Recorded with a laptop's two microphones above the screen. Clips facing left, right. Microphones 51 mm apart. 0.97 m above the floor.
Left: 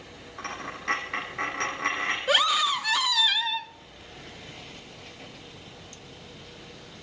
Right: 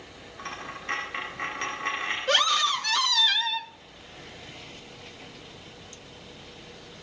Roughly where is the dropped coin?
Left.